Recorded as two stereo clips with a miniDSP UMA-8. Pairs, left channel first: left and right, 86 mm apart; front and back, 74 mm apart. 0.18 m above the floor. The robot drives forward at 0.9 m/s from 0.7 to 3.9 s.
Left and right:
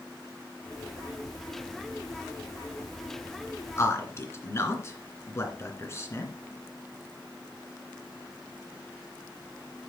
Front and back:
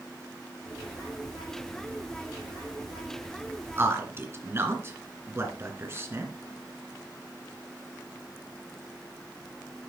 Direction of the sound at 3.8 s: 135° left.